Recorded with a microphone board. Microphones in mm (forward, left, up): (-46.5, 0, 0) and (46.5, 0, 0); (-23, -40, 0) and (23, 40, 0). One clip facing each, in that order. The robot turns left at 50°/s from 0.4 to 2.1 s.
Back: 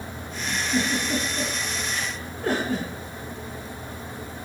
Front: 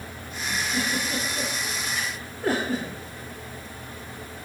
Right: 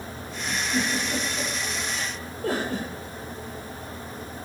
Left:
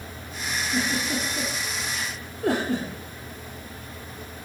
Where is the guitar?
I don't hear a guitar.